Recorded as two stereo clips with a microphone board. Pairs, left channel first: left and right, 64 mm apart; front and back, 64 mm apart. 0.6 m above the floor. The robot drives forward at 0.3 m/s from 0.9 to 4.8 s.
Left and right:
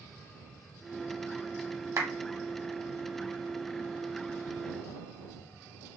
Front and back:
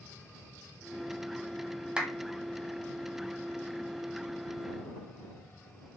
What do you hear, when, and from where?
2.0 s a clap: 110° right, 0.7 m; by 2.1 s 115° right, 0.7 m